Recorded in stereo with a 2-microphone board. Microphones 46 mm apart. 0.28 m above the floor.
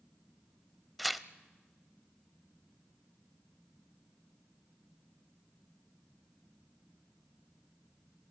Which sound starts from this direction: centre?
Tearing paper, at 1.0 s.